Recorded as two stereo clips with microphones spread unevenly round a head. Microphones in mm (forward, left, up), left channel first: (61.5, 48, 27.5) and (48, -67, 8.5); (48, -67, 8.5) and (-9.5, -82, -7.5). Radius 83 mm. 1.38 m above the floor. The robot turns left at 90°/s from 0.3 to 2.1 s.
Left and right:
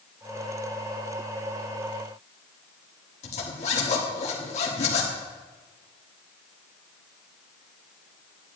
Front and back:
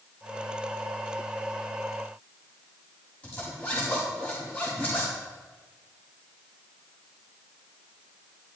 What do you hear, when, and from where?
3.2 s a zipper: 85° left, 1.5 m